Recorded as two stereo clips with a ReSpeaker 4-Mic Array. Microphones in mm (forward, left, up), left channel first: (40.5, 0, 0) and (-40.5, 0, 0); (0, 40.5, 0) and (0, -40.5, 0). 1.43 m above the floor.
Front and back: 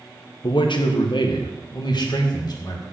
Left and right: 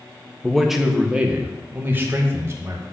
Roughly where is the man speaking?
Ahead.